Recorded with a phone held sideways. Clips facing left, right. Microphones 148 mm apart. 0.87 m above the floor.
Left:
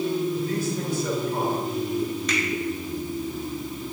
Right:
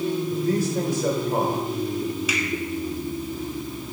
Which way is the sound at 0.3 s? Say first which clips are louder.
Right 3 dB; 80° right.